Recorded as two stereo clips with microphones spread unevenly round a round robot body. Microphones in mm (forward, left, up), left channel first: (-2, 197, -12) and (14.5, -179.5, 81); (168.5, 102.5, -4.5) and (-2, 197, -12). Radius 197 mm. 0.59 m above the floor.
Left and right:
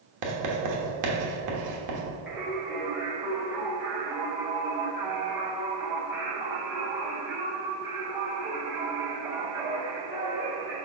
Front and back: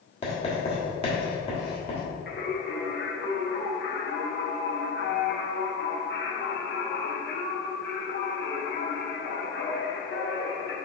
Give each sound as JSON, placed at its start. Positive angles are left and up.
{"t": 0.2, "sound": "writing", "azimuth_deg": -75, "distance_m": 1.4}
{"t": 2.3, "sound": "singing", "azimuth_deg": 5, "distance_m": 1.5}